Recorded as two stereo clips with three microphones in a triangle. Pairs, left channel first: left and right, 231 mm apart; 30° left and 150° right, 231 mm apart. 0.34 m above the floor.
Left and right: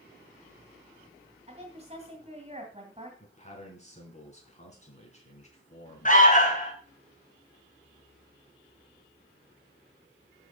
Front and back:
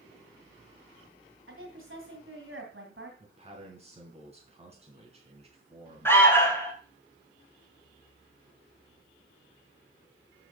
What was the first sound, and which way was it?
A woman speaking, 150° right.